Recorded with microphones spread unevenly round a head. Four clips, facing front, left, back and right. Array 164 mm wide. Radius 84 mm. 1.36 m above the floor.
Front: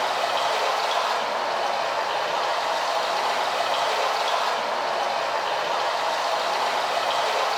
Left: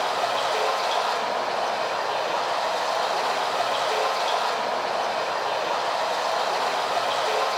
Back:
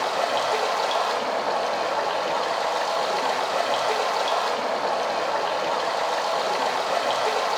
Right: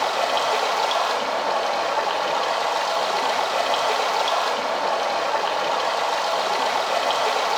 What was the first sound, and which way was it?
Running water, 125° right.